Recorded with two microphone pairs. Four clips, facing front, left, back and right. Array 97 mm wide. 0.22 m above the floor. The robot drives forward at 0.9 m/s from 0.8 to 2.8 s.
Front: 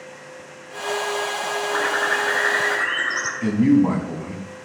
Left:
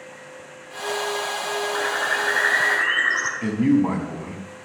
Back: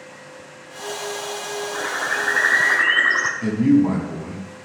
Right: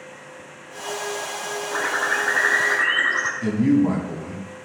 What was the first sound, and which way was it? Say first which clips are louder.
A bird: right 3 dB, front 3 dB; 15° right.